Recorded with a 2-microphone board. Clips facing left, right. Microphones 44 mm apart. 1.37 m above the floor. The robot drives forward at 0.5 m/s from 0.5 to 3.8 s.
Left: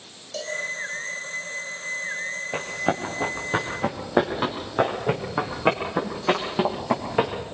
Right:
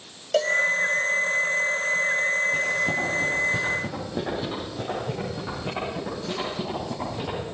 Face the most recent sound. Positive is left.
turn(degrees=70)  # may be behind; listen again after turning